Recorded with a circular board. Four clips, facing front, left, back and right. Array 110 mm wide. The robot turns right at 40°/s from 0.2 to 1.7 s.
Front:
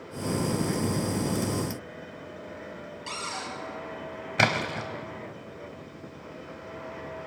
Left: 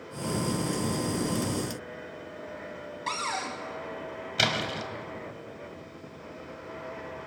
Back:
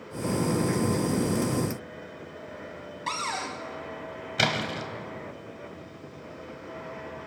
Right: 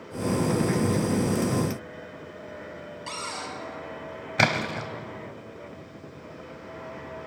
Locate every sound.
3.1 s a cupboard door: 140° left, 1.5 m
4.4 s a splash: 60° right, 0.8 m